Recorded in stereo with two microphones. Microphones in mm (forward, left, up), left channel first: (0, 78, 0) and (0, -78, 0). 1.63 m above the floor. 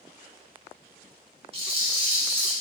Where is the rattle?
35° right (ahead or behind), 0.7 m.